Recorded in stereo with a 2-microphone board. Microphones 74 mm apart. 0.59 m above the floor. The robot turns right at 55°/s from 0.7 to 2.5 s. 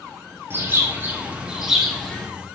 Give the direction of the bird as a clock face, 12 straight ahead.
2 o'clock.